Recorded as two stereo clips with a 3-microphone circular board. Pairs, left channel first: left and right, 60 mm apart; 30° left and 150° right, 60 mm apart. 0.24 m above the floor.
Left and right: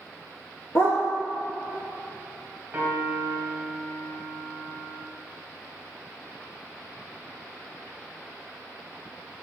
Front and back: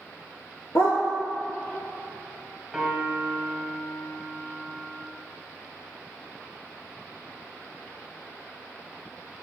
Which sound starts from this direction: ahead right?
A piano, at 2.7 s.